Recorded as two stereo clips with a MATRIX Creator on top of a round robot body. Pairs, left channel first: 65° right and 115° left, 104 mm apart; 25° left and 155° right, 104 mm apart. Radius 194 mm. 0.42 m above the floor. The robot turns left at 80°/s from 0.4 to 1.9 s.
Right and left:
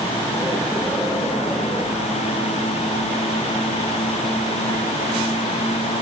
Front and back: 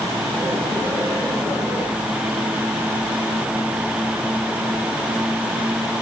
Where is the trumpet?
No trumpet in this recording.